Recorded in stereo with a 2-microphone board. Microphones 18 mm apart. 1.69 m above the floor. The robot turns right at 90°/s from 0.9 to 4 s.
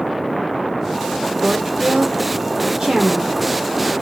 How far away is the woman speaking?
About 1.1 m.